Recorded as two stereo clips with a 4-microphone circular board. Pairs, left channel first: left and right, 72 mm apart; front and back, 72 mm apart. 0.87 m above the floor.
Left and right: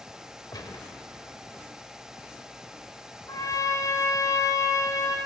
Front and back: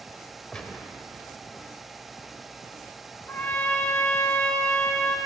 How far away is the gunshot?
About 1.2 m.